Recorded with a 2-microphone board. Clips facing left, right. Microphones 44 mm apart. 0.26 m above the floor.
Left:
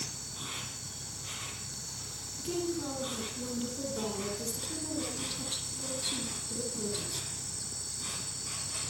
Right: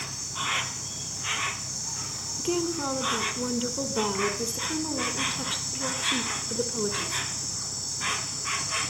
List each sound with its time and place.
0.0 s an insect: 65° right (ahead or behind), 1.0 m
2.4 s a woman speaking: 50° right (ahead or behind), 3.5 m